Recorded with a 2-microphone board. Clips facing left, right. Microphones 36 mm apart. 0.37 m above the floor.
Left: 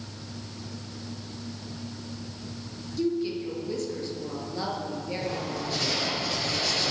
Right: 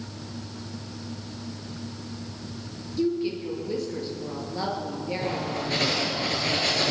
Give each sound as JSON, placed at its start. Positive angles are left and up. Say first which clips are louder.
{"t": 3.0, "sound": "a woman speaking", "louder": "right 2 dB", "side_deg": -15, "distance_m": 6.5}
{"t": 5.2, "sound": "writing", "louder": "right 3 dB", "side_deg": -50, "distance_m": 8.0}